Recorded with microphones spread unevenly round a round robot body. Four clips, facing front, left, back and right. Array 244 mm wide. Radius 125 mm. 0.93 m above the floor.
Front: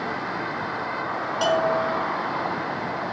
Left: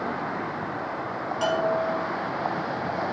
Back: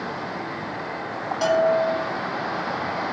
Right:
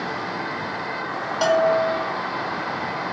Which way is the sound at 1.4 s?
85° right.